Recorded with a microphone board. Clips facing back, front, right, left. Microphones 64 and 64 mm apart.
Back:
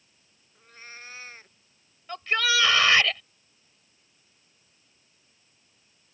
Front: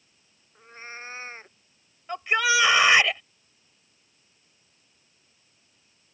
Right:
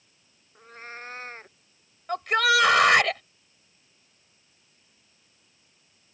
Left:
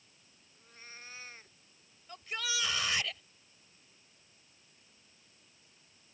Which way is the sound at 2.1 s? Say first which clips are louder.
Front 3 dB, right 18 dB; 70° right.